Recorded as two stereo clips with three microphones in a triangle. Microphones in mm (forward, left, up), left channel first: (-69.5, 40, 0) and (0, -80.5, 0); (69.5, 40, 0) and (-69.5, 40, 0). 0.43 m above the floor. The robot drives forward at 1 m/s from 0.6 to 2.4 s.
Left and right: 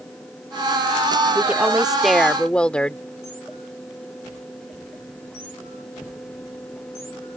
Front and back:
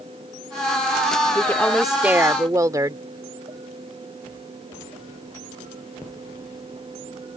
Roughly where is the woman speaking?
Ahead.